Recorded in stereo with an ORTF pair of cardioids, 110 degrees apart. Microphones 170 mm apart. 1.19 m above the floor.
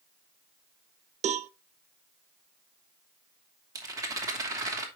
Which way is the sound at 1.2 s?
40° right.